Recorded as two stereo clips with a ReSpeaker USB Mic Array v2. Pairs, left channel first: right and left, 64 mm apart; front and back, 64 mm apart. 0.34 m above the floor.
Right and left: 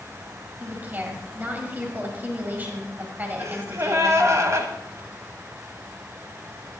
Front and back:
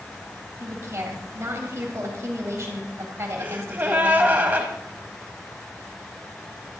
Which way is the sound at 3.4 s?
120° left.